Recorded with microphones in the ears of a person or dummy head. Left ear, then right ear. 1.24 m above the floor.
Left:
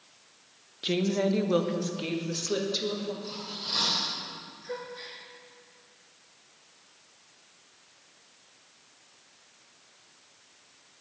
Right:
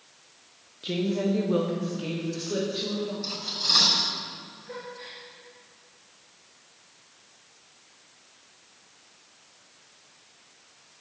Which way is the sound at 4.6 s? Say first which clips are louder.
Left 2 dB; 70° left (ahead or behind).